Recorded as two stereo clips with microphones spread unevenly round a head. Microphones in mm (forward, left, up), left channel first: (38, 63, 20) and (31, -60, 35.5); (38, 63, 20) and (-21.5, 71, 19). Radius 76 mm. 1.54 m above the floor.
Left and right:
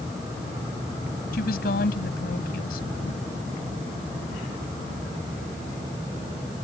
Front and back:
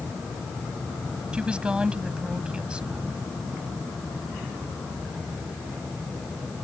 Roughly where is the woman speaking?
Left.